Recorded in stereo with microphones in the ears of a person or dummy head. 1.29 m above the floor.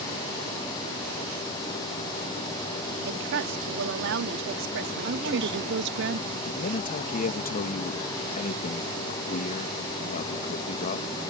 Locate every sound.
3.0 s a woman speaking: 70° right (ahead or behind)
5.0 s a woman speaking: 60° right (ahead or behind)
6.4 s a man speaking: 40° left (ahead or behind)